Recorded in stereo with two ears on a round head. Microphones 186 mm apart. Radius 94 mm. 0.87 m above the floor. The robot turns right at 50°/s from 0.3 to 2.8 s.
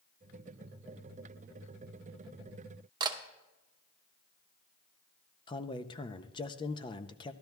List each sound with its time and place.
3.0 s a camera shutter: 20° right (ahead or behind), 0.8 m
5.5 s a man speaking: 20° left (ahead or behind), 0.5 m